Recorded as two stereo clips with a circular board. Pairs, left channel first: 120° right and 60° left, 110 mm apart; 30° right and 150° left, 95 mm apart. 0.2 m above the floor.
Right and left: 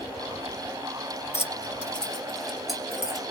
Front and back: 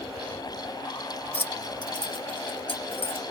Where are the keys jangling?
85° right, 0.9 m; by 3.2 s 30° right, 3 m.